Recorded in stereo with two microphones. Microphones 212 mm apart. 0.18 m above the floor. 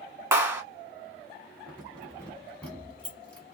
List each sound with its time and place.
0.3 s a clap: 15° right (ahead or behind), 1.2 m
1.7 s keys jangling: 5° left (ahead or behind), 1.2 m